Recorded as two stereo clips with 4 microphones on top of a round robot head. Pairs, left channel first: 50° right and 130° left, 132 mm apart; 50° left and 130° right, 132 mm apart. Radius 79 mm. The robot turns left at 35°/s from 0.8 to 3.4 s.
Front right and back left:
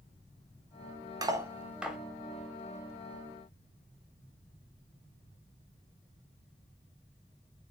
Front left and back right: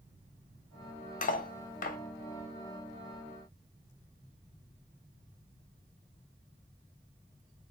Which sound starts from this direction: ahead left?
Cutlery clinking, at 1.2 s.